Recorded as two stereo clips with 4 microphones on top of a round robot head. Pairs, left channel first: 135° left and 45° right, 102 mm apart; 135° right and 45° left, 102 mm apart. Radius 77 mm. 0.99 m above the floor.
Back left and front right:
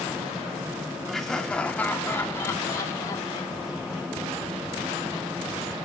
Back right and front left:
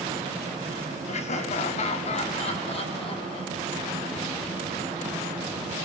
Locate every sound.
1.1 s laughter: 135° right, 1.8 m; by 4.0 s 175° right, 3 m